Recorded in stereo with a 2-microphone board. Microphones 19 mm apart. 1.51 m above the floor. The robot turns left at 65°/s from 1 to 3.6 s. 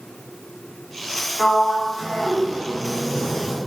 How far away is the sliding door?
About 0.9 m.